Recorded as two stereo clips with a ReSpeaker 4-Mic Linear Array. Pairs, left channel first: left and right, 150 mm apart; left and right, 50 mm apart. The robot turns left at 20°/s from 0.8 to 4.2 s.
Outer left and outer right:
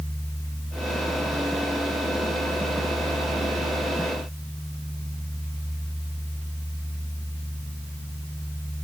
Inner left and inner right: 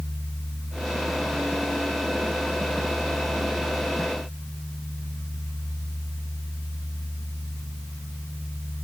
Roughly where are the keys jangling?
I don't hear keys jangling.